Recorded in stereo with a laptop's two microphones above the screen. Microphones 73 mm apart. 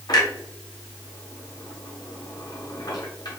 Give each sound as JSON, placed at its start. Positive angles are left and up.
{"t": 0.1, "sound": "a clunk", "side_deg": 70, "distance_m": 1.0}